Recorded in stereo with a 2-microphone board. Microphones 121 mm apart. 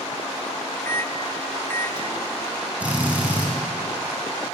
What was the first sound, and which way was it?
A microwave, 20° left (ahead or behind).